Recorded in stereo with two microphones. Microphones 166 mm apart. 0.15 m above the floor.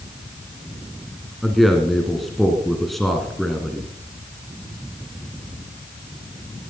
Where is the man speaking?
Centre (ahead or behind), 2 m.